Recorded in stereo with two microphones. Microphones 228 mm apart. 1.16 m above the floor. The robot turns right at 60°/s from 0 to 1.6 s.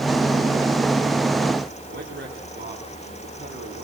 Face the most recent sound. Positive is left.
turn(degrees=-50)  # may be behind; listen again after turning